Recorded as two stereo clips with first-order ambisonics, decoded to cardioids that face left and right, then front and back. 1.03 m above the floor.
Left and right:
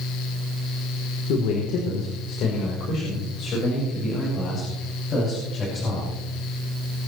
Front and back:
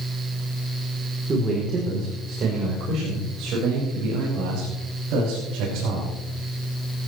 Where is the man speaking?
110° left, 3 m; by 6.1 s 155° left, 7 m.